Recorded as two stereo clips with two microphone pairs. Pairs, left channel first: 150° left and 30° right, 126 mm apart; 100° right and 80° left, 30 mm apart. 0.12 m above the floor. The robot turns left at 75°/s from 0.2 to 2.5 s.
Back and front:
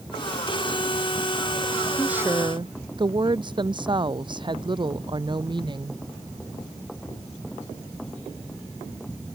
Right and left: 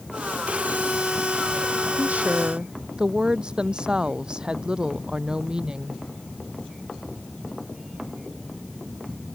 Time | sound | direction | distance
2.0 | a woman speaking | 60° left | ?